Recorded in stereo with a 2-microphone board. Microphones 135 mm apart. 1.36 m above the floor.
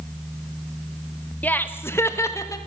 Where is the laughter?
10° left (ahead or behind), 1.7 m; by 2.6 s 25° left (ahead or behind), 2.5 m.